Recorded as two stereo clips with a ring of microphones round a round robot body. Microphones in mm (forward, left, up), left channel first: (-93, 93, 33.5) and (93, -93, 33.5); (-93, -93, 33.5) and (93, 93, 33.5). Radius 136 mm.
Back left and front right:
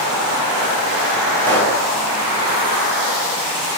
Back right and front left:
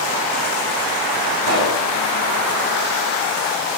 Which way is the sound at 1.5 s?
50° left.